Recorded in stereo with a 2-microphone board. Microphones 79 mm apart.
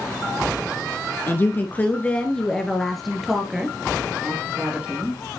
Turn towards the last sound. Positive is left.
turn(degrees=-20)  # may be behind; listen again after turning